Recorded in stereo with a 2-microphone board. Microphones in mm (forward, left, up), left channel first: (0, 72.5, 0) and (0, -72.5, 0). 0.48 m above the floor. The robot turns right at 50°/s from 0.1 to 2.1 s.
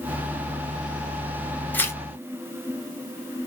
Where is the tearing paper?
10° left (ahead or behind), 0.9 m; by 2.0 s 20° left (ahead or behind), 0.9 m.